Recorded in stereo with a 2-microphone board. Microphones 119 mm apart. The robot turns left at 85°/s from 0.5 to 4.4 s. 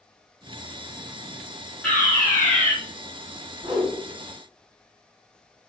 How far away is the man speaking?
No man speaking in this recording.